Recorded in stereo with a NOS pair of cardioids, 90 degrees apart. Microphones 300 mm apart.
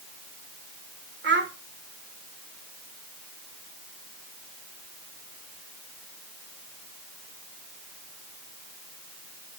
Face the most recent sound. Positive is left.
turn(degrees=-40)